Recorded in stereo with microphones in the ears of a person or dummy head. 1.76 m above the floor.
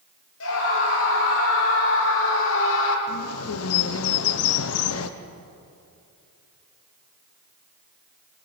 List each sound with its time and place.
0.4 s a scream: 80° left, 6.5 m; by 3.0 s 70° left (ahead or behind), 4 m
3.1 s a bird: 85° left, 1.2 m